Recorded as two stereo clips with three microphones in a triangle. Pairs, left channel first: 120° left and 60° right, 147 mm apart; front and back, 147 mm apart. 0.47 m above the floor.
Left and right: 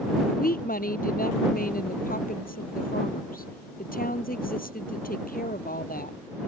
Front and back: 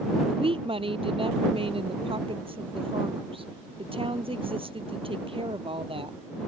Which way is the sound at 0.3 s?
130° left.